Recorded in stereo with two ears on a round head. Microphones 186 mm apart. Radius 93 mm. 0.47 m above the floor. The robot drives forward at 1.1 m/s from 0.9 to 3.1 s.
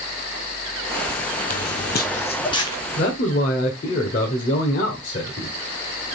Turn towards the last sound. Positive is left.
turn(degrees=40)  # may be behind; listen again after turning